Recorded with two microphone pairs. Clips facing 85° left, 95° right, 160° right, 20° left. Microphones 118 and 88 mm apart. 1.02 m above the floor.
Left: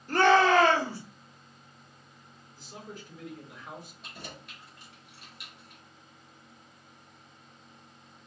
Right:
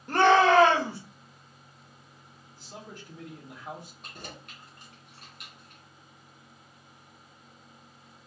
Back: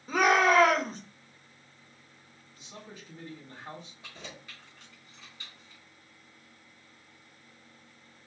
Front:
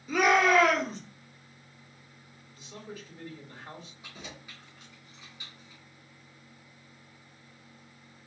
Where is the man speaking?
95° right, 3 m.